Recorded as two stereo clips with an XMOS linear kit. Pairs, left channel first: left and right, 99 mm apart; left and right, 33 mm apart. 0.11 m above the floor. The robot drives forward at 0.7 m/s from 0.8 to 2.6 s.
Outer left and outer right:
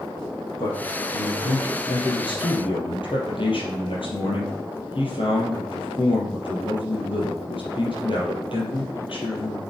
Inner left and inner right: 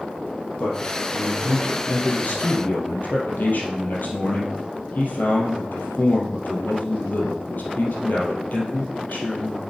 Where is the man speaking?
50° left (ahead or behind), 4.5 m; by 9.6 s 60° left (ahead or behind), 3.5 m.